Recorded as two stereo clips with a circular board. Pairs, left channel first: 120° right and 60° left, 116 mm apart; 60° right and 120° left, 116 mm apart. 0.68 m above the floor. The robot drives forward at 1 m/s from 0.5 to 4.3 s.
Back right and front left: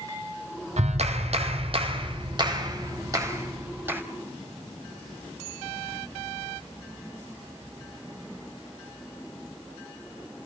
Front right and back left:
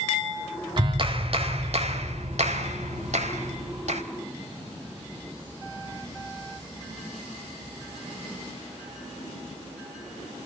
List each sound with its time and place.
0.8 s a clap: 75° left, 3 m; by 4.0 s 130° left, 4 m